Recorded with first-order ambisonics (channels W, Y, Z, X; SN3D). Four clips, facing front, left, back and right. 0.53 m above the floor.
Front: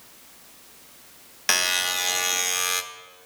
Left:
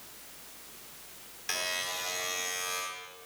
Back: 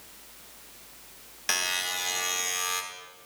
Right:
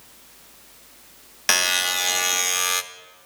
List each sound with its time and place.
1.5 s a buzzer: 60° right, 0.9 m